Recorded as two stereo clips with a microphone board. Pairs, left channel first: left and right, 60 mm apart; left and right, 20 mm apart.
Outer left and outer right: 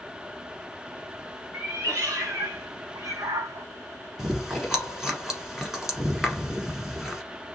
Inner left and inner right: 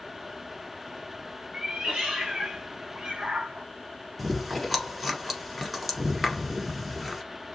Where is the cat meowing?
50° right (ahead or behind), 2.5 m; by 3.7 s 70° right (ahead or behind), 1.0 m.